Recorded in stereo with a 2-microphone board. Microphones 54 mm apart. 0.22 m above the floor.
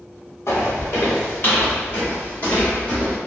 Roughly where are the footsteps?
Left.